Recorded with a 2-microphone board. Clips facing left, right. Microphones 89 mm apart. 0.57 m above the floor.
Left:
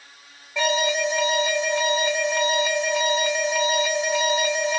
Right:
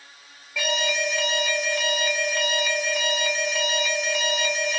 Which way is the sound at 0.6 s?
20° left (ahead or behind).